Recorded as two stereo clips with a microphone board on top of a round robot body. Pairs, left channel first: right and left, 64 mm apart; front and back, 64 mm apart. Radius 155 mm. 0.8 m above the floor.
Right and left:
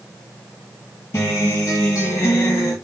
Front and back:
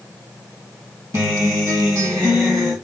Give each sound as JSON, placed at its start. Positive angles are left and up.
{"t": 1.1, "sound": "a guitar", "azimuth_deg": -140, "distance_m": 1.6}